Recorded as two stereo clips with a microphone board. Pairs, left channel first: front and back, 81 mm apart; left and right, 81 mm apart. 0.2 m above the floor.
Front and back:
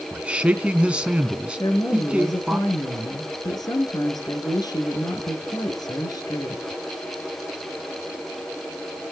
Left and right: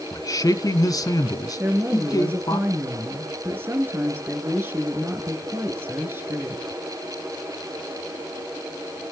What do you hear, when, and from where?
0.1 s a man speaking: 110° left, 1.5 m
1.6 s a woman speaking: 30° right, 3.5 m